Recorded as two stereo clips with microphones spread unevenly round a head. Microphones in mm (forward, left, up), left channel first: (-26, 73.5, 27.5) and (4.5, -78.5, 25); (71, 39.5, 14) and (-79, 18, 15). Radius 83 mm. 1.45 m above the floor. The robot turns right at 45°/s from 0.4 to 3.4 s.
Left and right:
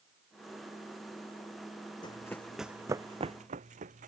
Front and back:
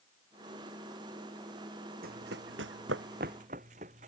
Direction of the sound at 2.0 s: 165° left.